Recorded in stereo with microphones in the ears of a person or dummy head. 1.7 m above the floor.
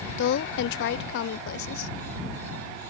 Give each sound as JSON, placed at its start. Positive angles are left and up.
{"t": 0.2, "sound": "a woman speaking", "side_deg": 65}